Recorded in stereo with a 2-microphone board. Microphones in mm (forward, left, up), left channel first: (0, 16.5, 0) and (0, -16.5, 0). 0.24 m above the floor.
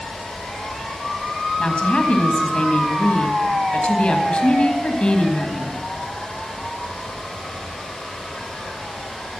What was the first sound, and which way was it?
A woman speaking, 35° left (ahead or behind).